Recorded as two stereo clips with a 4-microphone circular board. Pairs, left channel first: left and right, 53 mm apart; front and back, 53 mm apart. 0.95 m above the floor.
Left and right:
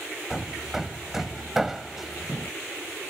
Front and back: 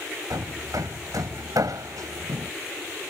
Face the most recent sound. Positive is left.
turn(degrees=-175)